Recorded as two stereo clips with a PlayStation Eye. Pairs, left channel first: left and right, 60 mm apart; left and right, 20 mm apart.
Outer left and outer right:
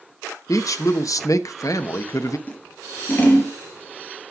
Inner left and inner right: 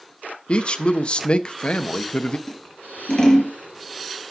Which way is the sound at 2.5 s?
35° left (ahead or behind).